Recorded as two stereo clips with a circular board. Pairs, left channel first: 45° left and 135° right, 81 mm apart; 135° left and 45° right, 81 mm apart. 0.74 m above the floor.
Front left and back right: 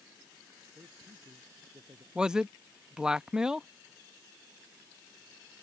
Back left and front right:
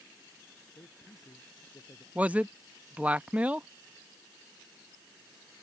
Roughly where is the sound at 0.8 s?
Behind.